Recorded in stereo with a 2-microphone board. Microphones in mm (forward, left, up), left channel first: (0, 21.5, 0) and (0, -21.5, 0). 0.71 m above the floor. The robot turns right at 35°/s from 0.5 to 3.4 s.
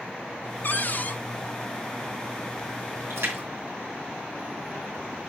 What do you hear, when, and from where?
0.6 s a cupboard door: 50° left (ahead or behind), 0.7 m; by 1.2 s 45° left (ahead or behind), 0.7 m
3.1 s a splash: 80° right, 2.5 m; by 5.0 s 90° right, 2.5 m